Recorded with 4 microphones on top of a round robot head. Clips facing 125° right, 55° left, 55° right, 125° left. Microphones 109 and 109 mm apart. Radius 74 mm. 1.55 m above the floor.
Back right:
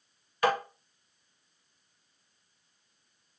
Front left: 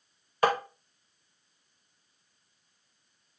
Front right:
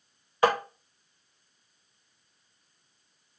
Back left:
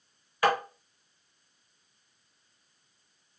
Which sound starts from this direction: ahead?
Tapping, at 0.4 s.